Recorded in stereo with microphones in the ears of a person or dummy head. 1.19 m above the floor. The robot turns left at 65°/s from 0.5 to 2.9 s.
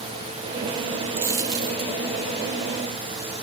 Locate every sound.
1.2 s a dropped coin: 15° right (ahead or behind), 0.6 m; by 1.9 s 30° right (ahead or behind), 0.6 m